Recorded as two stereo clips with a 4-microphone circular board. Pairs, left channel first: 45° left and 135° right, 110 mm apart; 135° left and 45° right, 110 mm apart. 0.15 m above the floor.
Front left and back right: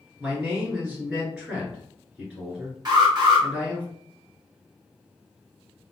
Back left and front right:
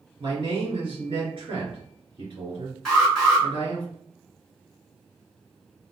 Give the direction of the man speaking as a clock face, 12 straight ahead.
2 o'clock.